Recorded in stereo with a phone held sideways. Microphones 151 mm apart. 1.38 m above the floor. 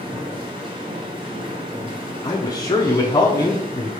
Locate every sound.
0.0 s a machine running: 35° right (ahead or behind), 1.0 m
2.2 s a man speaking: 25° left (ahead or behind), 0.6 m